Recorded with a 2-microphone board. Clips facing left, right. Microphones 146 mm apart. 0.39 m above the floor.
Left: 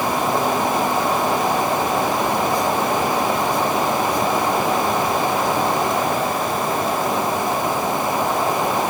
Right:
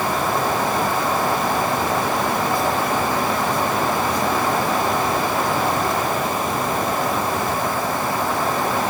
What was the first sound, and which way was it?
Only background noise.